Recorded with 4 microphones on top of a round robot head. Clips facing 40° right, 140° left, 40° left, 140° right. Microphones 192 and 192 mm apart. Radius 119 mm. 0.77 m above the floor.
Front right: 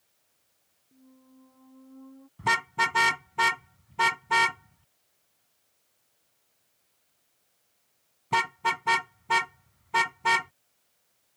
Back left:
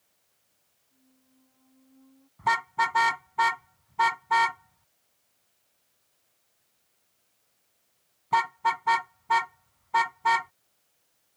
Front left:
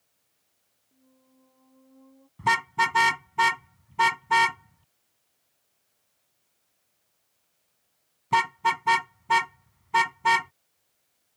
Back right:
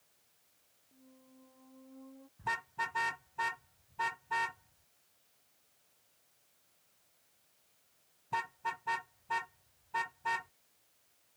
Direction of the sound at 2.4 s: 25° left.